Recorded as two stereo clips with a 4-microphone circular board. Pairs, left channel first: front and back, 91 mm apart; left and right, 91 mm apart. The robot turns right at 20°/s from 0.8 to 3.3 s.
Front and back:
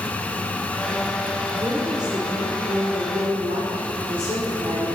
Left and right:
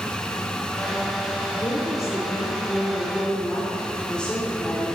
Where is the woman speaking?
135° left, 3.5 m; by 4.9 s 170° left, 3.5 m.